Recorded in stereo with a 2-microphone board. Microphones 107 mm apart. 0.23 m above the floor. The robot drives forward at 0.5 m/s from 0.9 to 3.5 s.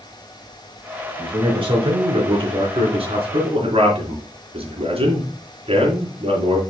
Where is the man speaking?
50° right (ahead or behind), 3 m; by 6.6 s 60° right (ahead or behind), 3 m.